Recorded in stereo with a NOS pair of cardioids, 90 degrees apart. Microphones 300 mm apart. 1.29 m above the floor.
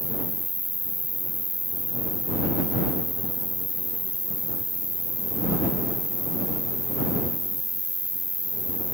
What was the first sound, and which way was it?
An insect, 5° right.